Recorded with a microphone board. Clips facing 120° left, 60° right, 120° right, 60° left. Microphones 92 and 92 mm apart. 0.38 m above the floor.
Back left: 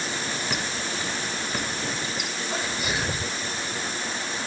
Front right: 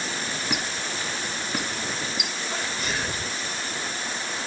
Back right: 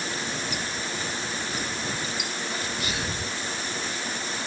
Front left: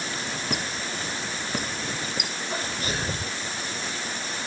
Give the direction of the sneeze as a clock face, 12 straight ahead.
11 o'clock.